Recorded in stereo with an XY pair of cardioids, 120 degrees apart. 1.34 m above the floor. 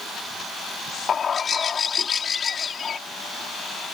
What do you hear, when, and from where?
1.1 s a bird: 35° left